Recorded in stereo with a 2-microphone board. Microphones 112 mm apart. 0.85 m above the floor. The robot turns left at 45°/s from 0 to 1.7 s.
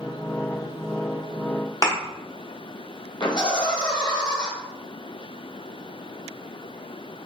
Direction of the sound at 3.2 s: 40° left (ahead or behind).